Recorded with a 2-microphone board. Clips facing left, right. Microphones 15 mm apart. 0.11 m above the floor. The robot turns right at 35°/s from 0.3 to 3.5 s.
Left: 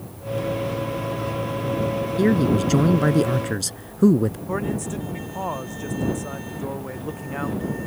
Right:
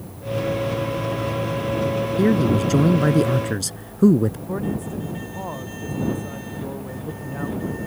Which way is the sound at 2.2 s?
15° left (ahead or behind).